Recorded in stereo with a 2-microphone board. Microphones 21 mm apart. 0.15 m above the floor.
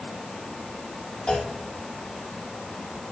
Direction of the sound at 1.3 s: 50° left (ahead or behind).